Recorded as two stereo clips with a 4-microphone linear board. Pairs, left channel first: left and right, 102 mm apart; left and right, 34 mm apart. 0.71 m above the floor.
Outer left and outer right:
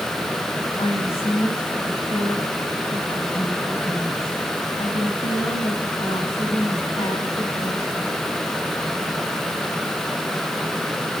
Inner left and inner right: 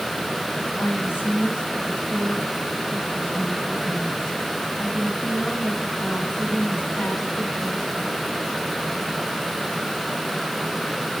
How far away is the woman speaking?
About 8 m.